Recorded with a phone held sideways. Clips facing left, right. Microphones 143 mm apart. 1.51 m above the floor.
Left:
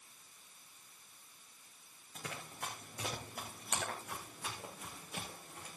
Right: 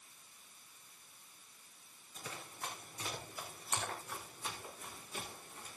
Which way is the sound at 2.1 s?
80° left.